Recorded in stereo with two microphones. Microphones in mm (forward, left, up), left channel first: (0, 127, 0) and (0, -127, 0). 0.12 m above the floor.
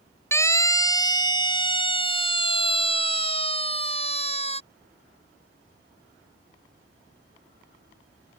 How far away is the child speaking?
No child speaking in this recording.